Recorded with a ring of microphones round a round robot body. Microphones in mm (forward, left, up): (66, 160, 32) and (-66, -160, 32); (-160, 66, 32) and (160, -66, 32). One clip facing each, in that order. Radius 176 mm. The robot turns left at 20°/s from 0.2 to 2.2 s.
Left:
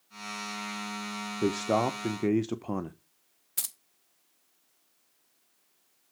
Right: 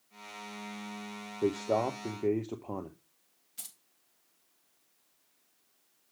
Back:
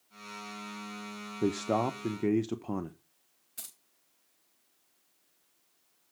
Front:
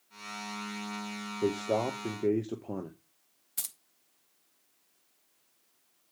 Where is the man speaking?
115° left, 0.6 m; by 3.0 s 100° left, 0.6 m.